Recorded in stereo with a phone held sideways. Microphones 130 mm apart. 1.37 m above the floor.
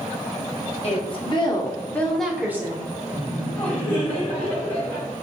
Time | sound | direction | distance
0.8 | a woman speaking | 50° left (ahead or behind) | 1.0 m
3.1 | laughter | 20° left (ahead or behind) | 1.9 m